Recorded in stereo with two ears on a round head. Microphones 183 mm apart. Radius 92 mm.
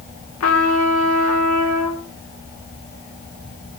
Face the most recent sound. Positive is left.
turn(degrees=80)